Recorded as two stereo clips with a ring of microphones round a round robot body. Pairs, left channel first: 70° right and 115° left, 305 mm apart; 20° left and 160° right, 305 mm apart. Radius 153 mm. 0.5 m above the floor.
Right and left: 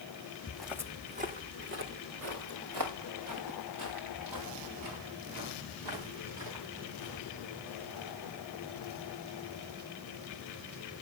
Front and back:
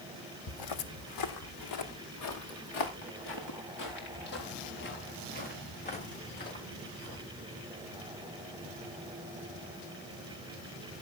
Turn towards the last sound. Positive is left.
turn(degrees=85)